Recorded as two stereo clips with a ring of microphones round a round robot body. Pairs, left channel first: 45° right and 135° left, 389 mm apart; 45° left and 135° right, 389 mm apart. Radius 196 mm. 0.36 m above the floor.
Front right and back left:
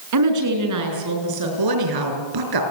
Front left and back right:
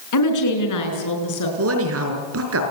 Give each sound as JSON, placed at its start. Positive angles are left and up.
{"t": 0.1, "sound": "a woman speaking", "azimuth_deg": 90, "distance_m": 5.5}
{"t": 1.6, "sound": "a woman speaking", "azimuth_deg": 170, "distance_m": 5.5}